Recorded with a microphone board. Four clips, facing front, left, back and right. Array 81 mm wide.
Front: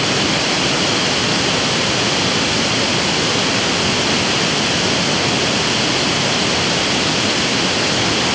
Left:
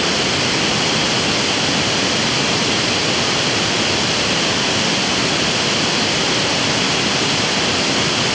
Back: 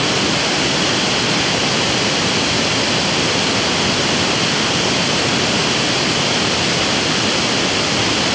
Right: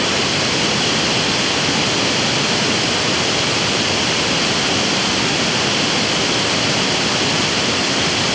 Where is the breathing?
I don't hear breathing.